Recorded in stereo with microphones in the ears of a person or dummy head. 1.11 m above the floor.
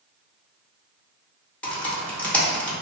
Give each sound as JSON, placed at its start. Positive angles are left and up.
{"t": 1.6, "sound": "typing on a keyboard", "side_deg": 10, "distance_m": 0.6}